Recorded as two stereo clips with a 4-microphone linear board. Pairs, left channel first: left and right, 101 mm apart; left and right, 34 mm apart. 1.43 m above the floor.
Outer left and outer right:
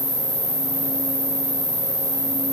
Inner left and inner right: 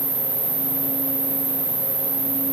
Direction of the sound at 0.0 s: 50° left (ahead or behind).